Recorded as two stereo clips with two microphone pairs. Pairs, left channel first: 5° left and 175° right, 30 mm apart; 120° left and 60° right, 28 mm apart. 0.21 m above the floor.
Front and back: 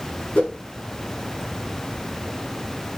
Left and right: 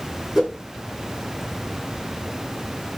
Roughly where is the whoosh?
Ahead.